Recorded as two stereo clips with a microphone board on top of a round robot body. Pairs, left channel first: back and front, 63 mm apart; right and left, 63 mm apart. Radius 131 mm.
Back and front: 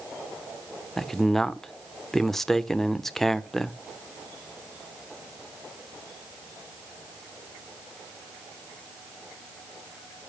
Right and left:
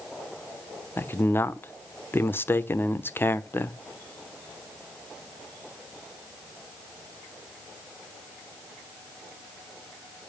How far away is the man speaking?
About 1.0 m.